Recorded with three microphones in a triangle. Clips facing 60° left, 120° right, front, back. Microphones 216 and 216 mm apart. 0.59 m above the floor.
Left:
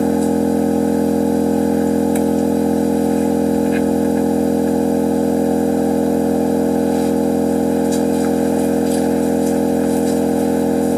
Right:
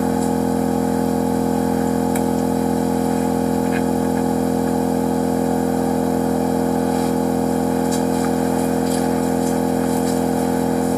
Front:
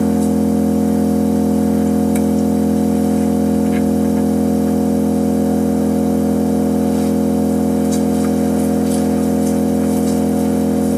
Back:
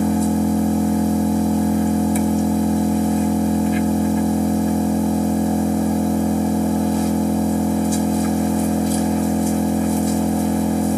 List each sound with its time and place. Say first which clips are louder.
0.0 s an engine running: left 4 dB, front 4 dB; straight ahead, 1.1 m